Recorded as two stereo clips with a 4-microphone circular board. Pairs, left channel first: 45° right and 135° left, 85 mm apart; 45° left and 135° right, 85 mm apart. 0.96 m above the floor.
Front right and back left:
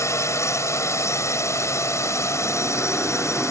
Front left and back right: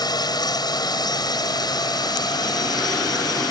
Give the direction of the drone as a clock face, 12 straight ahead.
12 o'clock.